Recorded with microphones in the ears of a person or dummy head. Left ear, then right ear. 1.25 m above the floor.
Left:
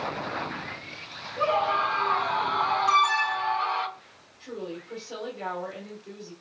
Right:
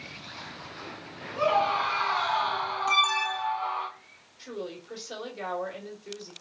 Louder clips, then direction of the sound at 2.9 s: Even; 10° right (ahead or behind).